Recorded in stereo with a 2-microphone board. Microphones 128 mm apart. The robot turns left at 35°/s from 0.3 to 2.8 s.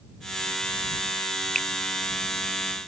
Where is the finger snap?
80° right.